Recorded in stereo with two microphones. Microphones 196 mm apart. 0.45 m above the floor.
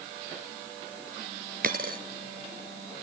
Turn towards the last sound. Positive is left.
turn(degrees=-50)  # may be behind; listen again after turning